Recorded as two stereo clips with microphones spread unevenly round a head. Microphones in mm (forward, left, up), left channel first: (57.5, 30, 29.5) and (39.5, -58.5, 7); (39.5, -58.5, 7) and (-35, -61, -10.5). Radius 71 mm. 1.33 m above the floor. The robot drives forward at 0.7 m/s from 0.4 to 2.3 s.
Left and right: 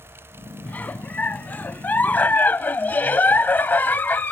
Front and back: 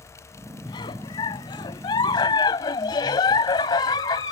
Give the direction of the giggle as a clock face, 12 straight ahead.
12 o'clock.